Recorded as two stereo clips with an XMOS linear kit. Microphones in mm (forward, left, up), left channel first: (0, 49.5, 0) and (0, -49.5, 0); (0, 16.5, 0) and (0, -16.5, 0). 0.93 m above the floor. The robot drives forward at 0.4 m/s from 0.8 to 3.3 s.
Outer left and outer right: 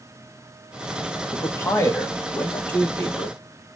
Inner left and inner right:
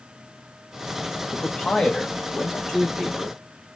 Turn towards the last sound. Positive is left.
turn(degrees=15)  # may be behind; listen again after turning